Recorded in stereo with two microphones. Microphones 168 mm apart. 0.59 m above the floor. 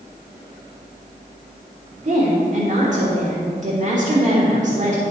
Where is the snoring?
I don't hear snoring.